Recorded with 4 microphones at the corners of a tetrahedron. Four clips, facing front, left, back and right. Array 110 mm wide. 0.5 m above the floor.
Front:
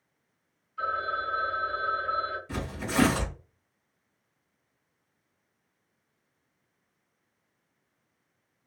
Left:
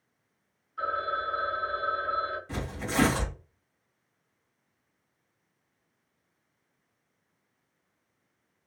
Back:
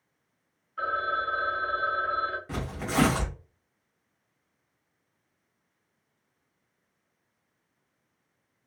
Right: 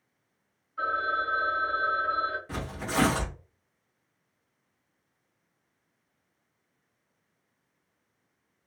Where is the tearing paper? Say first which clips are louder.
Right 1 dB, back 1 dB; 170° right, 1.8 m.